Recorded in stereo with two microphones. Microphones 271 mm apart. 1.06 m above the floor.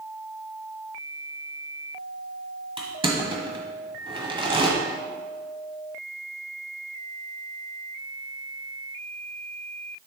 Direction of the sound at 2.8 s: 20° right (ahead or behind).